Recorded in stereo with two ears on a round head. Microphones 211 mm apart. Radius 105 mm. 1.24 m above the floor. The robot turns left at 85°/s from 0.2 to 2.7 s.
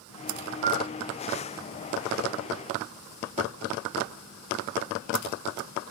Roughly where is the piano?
Right.